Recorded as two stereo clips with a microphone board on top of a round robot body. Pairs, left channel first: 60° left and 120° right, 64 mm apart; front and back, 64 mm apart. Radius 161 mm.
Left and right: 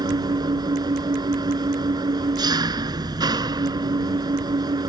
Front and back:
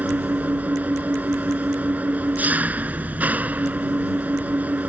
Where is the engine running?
115° right.